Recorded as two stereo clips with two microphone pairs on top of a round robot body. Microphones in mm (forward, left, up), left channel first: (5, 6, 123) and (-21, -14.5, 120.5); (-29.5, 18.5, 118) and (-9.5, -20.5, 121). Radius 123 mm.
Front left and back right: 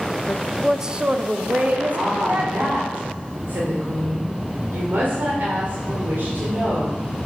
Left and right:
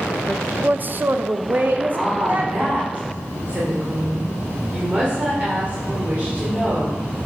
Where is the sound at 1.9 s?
125° right, 2.5 m.